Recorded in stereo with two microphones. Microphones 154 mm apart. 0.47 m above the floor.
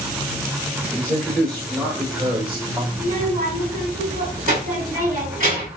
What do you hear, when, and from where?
0.9 s a man speaking: centre (ahead or behind), 1.5 m; by 2.8 s 20° right (ahead or behind), 2 m
2.9 s a child speaking: 55° right (ahead or behind), 2.5 m